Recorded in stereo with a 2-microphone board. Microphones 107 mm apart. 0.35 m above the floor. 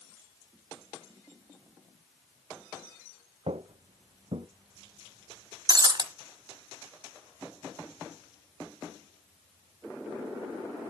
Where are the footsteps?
65° right (ahead or behind), 0.7 m; by 4.5 s 60° right (ahead or behind), 1.5 m.